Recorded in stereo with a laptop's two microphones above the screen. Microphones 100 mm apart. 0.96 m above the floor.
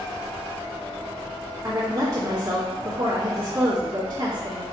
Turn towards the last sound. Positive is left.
turn(degrees=-35)  # may be behind; listen again after turning